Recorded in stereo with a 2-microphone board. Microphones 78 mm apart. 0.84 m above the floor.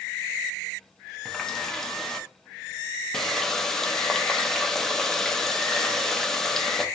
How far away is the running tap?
About 0.5 m.